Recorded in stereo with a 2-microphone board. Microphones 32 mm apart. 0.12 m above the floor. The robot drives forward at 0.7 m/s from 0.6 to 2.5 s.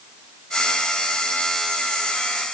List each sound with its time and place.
Only background noise.